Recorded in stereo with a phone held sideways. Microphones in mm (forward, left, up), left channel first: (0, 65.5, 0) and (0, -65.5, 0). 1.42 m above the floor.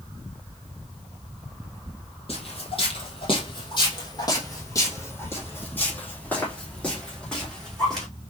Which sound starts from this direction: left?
Footsteps, at 2.3 s.